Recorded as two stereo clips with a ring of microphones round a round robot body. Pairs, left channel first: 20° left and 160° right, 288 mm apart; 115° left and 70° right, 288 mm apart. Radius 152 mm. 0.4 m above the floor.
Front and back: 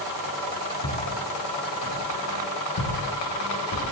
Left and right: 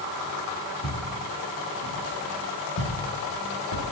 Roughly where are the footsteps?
Ahead left.